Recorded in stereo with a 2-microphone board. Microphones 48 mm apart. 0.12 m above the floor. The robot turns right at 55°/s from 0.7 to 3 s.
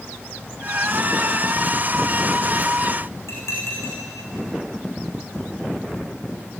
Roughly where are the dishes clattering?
Left.